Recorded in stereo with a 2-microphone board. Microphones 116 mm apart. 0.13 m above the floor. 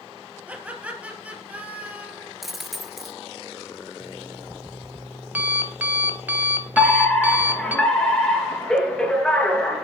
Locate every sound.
0.5 s laughter: 10° right (ahead or behind), 3.5 m
2.4 s a dropped coin: centre (ahead or behind), 1.0 m
4.0 s an alarm clock: 15° right (ahead or behind), 1.2 m
6.8 s a fire alarm: 10° left (ahead or behind), 3.5 m